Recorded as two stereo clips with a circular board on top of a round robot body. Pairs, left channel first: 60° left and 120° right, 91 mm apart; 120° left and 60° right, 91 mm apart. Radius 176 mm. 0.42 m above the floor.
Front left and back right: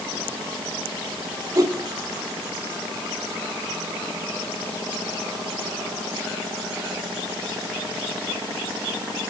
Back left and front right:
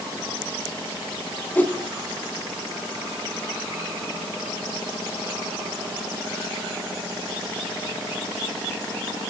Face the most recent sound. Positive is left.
turn(degrees=-170)